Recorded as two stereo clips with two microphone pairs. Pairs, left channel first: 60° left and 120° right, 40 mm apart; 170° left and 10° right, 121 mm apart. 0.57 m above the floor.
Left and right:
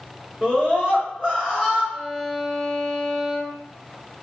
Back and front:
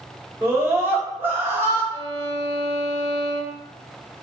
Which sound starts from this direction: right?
A scream, at 0.4 s.